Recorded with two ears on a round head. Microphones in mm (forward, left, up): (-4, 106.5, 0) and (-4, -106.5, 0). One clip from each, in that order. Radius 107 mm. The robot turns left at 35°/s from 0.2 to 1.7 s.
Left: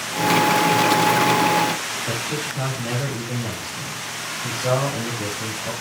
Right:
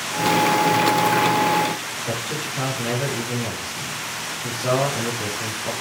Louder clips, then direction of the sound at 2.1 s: Left 1 dB; 5° right (ahead or behind).